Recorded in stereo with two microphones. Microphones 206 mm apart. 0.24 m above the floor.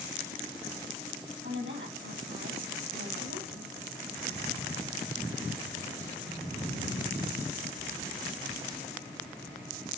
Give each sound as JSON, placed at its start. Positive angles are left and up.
{"t": 1.4, "sound": "a woman speaking", "side_deg": -65, "distance_m": 6.0}